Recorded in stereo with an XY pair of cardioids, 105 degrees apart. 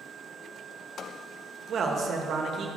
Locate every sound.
1.7 s a man speaking: 60° right, 1.1 m